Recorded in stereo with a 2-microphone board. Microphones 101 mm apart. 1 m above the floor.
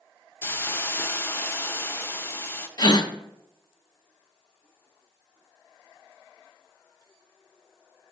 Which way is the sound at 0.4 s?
25° left (ahead or behind).